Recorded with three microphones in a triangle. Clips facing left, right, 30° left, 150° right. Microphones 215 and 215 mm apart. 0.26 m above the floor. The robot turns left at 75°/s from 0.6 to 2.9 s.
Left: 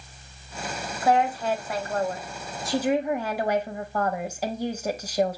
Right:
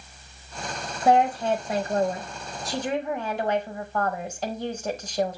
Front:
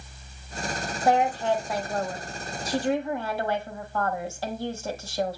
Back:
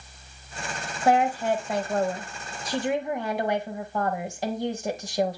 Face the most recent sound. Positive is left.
turn(degrees=160)